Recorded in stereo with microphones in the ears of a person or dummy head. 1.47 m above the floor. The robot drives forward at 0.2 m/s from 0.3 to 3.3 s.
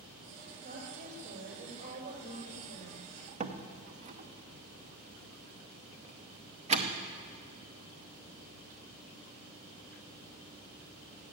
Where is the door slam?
35° right (ahead or behind), 0.7 m.